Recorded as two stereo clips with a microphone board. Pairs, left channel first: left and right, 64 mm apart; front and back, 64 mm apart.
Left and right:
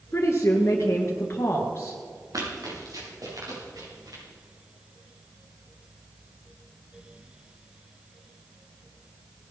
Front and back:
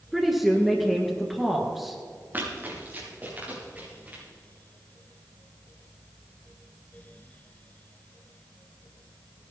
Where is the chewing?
No chewing in this recording.